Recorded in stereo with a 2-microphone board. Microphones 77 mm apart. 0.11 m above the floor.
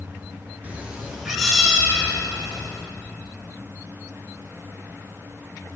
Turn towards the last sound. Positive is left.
turn(degrees=5)  # may be behind; listen again after turning